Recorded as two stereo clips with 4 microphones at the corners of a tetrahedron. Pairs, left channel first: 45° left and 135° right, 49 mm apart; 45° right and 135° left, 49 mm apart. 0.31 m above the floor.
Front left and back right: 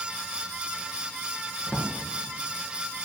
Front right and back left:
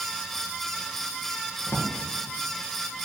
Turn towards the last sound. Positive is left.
turn(degrees=-10)